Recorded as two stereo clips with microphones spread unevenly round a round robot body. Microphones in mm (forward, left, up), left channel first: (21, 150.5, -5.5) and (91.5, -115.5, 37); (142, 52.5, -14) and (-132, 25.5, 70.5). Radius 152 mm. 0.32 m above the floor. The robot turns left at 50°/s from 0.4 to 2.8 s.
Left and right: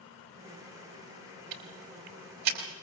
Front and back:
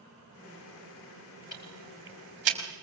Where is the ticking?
70° right, 3.5 m; by 2.6 s 125° right, 3.5 m.